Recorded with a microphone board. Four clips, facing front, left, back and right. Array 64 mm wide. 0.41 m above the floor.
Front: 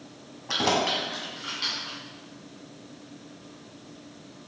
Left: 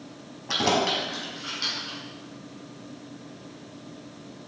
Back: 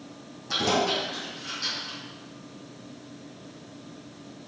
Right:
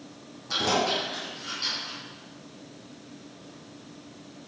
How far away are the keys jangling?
About 1.9 m.